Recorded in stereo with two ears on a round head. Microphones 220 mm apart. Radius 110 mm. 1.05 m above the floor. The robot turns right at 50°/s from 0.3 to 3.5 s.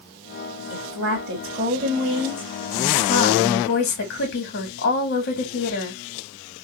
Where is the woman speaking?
95° right, 2.5 m; by 6.0 s 45° left, 2.5 m.